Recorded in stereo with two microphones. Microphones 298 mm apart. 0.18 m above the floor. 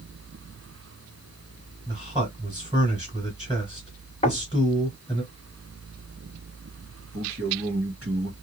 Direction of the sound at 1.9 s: 15° right (ahead or behind).